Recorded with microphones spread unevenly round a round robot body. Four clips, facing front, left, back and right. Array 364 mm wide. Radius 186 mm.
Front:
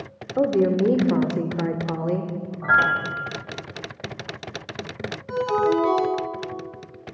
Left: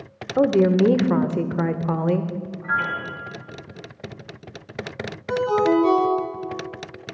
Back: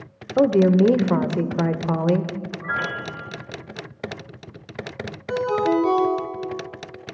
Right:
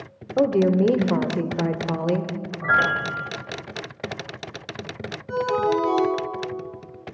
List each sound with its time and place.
0.4 s a woman speaking: 170° left, 0.9 m
2.6 s a piano: 50° right, 0.9 m
5.3 s a ringtone: 125° left, 4.5 m